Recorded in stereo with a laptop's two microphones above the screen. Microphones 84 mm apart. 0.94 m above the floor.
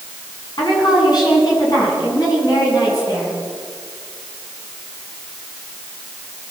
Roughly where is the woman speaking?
Left.